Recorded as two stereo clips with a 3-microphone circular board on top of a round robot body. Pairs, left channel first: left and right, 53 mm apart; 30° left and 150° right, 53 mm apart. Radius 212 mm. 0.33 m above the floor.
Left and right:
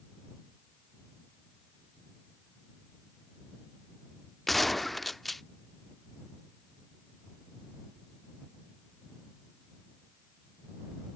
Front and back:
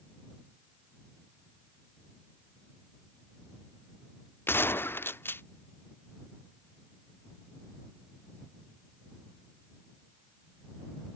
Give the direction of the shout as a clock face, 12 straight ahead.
I don't hear a shout.